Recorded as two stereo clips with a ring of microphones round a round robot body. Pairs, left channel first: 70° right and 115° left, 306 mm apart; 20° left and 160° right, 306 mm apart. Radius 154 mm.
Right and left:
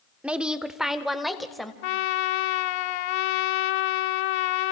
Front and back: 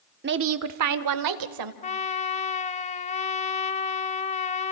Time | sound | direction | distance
0.2 | a woman speaking | 165° right | 0.8 m
1.8 | a trumpet | 50° right | 0.6 m